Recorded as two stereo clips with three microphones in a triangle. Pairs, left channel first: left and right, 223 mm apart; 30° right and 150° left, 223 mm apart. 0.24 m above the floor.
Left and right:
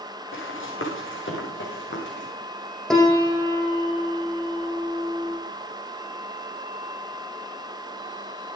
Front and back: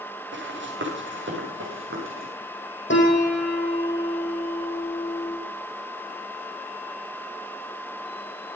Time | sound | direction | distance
0.3 | running footsteps | 115° left | 5.5 m
2.9 | a piano | straight ahead | 3.5 m